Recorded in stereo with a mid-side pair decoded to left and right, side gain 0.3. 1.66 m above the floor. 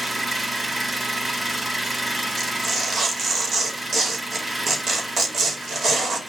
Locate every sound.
0.0 s an engine running: 35° right, 5 m
2.4 s tearing paper: 65° right, 4.5 m